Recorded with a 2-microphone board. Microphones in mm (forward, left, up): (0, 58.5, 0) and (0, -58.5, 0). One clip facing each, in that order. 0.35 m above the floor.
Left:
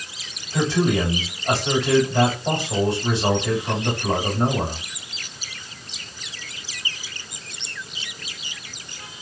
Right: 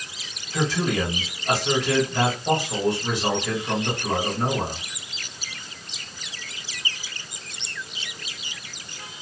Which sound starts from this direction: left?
A man speaking, at 0.5 s.